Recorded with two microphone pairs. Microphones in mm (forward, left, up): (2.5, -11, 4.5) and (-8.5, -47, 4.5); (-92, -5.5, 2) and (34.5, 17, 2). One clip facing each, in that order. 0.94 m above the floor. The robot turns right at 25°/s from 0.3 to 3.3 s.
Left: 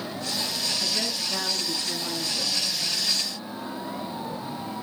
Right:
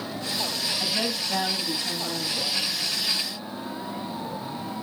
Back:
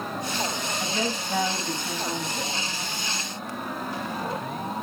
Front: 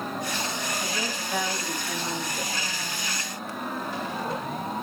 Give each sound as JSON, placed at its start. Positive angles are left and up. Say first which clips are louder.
{"t": 0.8, "sound": "a woman speaking", "louder": "right 1 dB, back 3 dB", "azimuth_deg": -125, "distance_m": 7.0}